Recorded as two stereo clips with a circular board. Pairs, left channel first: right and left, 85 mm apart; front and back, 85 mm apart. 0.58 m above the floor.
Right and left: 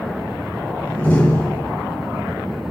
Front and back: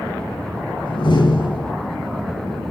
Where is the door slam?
20° right, 5.5 m.